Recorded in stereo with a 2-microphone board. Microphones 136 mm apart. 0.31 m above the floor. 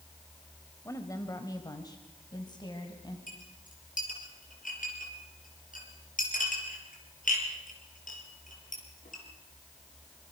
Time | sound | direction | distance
0.8 | a woman speaking | 20° left (ahead or behind) | 1.7 m
3.3 | a clink | 75° left (ahead or behind) | 5.5 m